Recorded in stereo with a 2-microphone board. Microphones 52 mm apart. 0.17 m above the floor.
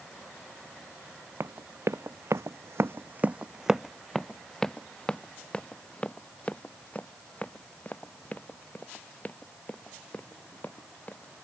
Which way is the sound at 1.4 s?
65° right (ahead or behind).